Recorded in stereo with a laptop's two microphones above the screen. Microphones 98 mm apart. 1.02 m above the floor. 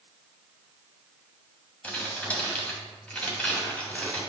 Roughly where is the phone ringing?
I don't hear a phone ringing.